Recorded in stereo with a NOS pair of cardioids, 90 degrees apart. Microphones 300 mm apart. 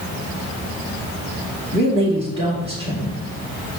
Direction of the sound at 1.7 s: 35° right.